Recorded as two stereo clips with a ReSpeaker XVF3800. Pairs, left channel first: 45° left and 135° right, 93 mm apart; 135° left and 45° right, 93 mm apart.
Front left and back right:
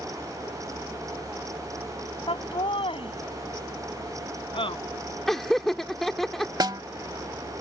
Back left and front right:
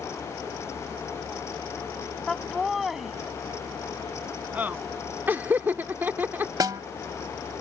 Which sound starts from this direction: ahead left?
Laughter, at 2.3 s.